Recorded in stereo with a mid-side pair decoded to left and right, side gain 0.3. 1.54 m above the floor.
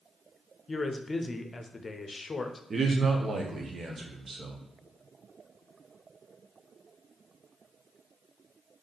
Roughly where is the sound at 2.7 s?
Ahead right.